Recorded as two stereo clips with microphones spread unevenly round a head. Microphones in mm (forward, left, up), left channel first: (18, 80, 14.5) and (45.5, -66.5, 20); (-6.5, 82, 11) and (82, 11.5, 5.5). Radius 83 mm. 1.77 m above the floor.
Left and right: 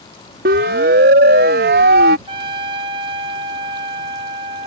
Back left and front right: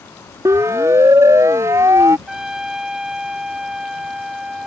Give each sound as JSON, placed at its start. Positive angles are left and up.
{"t": 0.5, "sound": "a siren", "azimuth_deg": -115}
{"t": 2.3, "sound": "a trumpet", "azimuth_deg": -125}